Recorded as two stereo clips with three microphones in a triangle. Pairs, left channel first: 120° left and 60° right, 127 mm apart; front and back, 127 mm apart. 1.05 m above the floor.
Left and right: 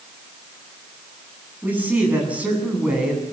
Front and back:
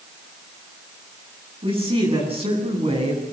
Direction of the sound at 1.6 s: 140° right.